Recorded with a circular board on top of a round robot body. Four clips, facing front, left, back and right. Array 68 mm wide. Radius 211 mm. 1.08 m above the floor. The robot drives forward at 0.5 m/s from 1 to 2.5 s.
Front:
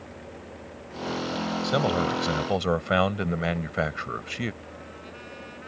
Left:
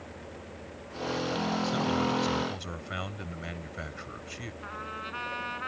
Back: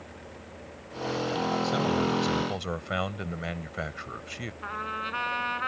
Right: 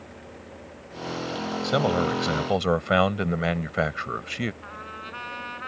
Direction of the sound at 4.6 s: Straight behind.